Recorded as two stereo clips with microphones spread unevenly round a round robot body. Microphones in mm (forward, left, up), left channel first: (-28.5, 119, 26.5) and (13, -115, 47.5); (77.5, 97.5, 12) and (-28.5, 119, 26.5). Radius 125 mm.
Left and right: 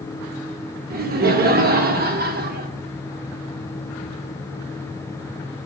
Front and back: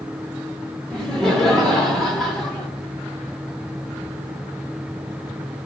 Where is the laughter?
90° right, 1.0 m.